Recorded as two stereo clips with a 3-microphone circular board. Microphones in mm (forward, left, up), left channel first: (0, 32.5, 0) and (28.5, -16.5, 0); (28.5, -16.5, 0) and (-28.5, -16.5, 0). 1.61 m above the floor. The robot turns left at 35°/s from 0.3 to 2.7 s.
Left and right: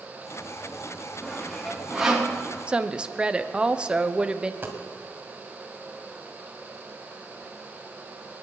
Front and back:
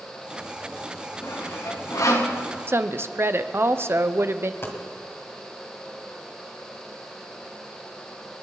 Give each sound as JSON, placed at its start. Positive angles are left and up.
{"t": 1.2, "sound": "sawing", "azimuth_deg": 50, "distance_m": 2.5}
{"t": 2.7, "sound": "a woman speaking", "azimuth_deg": -130, "distance_m": 0.9}
{"t": 4.6, "sound": "a dropped coin", "azimuth_deg": -25, "distance_m": 2.0}